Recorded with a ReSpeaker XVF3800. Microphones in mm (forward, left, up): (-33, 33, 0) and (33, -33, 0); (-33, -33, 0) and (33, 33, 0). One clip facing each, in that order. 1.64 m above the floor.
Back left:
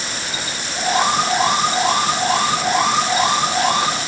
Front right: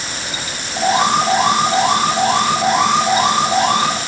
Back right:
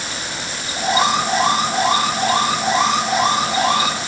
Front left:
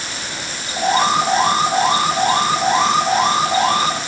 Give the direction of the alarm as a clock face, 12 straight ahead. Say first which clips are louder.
Front right 3 dB, front left 2 dB; 12 o'clock.